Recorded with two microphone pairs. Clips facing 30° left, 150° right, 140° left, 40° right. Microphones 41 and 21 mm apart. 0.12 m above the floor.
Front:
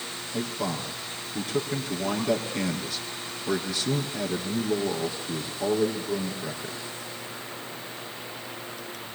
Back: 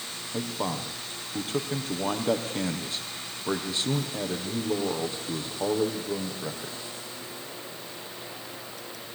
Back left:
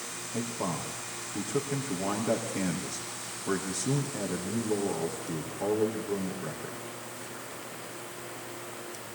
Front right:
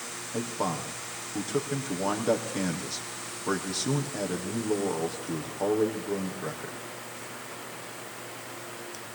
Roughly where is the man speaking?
Right.